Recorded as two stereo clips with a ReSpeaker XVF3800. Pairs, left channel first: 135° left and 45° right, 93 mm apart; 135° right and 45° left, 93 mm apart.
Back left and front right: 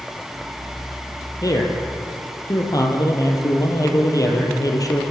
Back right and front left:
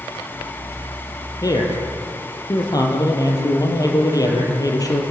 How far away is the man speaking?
About 5 m.